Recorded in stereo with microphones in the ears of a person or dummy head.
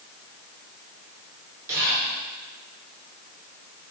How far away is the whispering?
About 1.4 m.